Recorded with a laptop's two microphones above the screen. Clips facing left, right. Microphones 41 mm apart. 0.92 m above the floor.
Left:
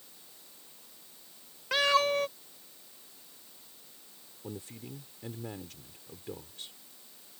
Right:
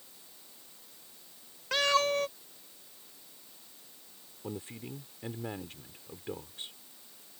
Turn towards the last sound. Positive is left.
turn(degrees=-30)  # may be behind; listen again after turning